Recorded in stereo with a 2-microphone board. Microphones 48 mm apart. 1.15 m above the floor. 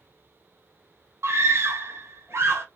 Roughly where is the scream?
Right.